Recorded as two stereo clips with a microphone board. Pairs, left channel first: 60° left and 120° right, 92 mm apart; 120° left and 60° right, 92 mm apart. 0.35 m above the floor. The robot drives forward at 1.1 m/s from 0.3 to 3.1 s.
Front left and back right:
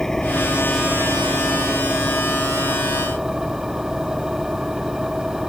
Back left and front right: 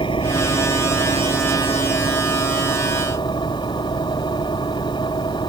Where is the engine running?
145° left; by 5.5 s 155° left.